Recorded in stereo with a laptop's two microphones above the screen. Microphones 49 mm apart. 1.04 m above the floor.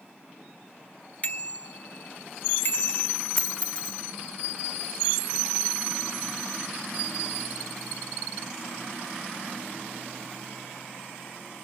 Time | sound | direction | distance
1.2 | a bicycle bell | 35° left (ahead or behind) | ?
3.4 | a dropped coin | 30° left (ahead or behind) | ?